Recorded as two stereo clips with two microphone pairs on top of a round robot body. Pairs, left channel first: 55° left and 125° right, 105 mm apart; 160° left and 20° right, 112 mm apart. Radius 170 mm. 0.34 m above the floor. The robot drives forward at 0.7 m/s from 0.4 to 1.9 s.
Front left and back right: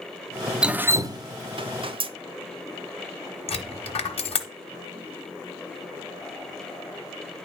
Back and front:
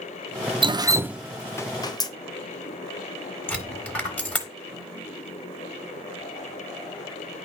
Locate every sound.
0.6 s dripping: 40° right, 0.7 m; by 2.1 s 150° right, 0.8 m
3.5 s a dropped coin: 85° left, 1.3 m